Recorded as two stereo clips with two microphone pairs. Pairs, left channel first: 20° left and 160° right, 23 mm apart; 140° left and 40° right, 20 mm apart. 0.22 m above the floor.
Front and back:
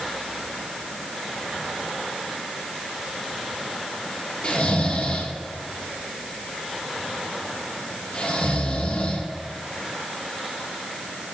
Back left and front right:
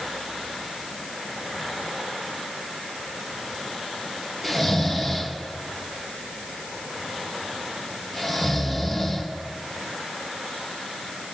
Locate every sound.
4.4 s snoring: 35° left, 3 m